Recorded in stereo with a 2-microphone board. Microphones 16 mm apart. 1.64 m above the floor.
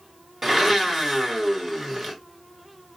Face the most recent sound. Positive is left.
turn(degrees=-25)  # may be behind; listen again after turning